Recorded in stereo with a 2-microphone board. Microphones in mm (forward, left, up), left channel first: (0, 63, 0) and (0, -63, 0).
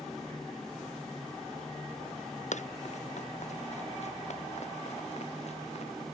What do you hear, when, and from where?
2.5 s running footsteps: 70° left (ahead or behind); by 5.9 s 60° left (ahead or behind)